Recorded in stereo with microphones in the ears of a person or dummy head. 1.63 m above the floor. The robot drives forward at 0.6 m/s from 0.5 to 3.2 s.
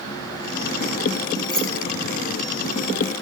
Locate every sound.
1.5 s keys jangling: centre (ahead or behind), 7 m